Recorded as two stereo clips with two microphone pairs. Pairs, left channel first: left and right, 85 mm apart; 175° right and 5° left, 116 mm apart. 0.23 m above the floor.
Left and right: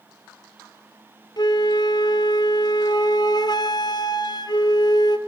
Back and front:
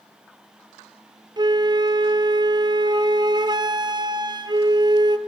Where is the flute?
55° left, 1.1 m.